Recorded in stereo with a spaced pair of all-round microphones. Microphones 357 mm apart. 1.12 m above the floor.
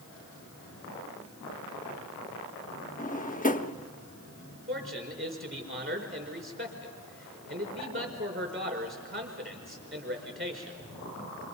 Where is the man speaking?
35° right (ahead or behind), 4.5 m.